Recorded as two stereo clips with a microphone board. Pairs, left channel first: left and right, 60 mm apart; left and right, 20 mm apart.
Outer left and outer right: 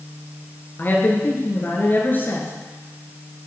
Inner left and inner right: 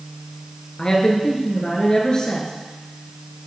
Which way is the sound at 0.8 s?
35° left (ahead or behind).